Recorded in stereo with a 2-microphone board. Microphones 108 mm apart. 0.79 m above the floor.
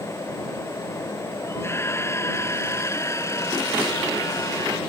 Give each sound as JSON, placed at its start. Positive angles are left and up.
{"t": 1.5, "sound": "a scream", "side_deg": 25}